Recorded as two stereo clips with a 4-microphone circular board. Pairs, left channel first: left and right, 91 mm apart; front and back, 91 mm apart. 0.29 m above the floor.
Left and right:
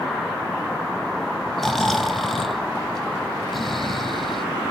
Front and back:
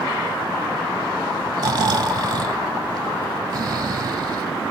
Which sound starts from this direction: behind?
Snoring, at 1.6 s.